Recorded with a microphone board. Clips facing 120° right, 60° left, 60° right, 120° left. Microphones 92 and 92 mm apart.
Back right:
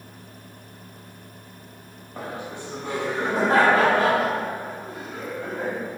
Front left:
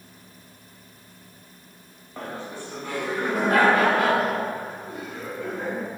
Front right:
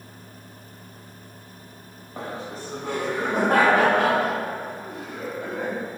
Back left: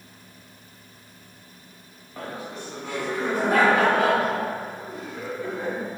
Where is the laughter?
55° right, 1.2 m; by 5.8 s 75° right, 3.5 m.